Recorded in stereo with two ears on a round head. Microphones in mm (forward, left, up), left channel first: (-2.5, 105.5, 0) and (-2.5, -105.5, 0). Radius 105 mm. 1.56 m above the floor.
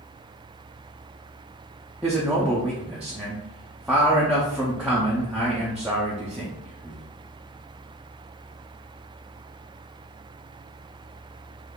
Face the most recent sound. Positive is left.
turn(degrees=-5)  # may be behind; listen again after turning